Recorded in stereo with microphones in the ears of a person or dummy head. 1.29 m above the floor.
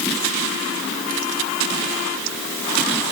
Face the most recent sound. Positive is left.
No sound to turn to.